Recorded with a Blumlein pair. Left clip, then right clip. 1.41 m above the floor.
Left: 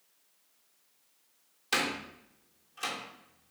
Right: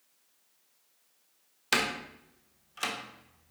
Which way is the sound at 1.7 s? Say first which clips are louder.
Right 2 dB; 65° right.